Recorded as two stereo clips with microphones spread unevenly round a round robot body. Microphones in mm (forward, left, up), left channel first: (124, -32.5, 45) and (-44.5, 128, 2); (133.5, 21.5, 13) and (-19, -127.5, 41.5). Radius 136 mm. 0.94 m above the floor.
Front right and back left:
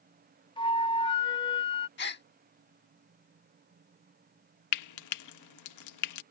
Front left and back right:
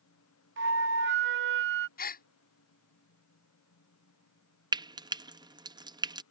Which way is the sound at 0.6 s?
120° right.